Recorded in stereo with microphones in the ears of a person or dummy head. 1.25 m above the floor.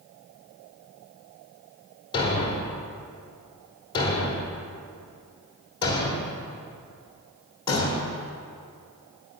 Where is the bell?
No bell in this recording.